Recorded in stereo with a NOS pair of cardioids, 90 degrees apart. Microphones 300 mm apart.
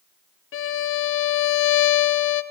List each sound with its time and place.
0.5 s a violin: 45° left, 0.5 m